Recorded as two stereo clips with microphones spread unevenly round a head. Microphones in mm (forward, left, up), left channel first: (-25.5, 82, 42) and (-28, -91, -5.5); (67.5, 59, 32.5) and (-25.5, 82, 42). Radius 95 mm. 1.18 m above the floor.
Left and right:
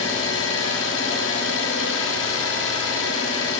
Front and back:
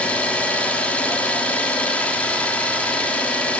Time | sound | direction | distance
0.0 | an engine running | 65° left | 1.7 m